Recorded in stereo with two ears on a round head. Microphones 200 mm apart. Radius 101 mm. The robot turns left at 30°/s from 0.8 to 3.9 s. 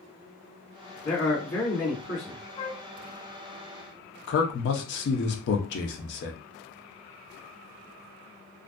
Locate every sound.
1.1 s a man speaking: 120° left, 1.6 m; by 2.4 s 80° left, 1.6 m
2.6 s a flute: 30° left (ahead or behind), 0.9 m; by 2.8 s 40° left (ahead or behind), 0.9 m
4.3 s a man speaking: 50° left (ahead or behind), 0.6 m